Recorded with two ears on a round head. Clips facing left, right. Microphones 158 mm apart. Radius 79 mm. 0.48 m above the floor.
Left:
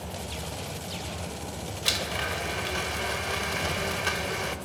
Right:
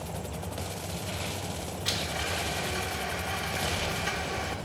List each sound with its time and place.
1.9 s a blender: 65° left (ahead or behind), 1.3 m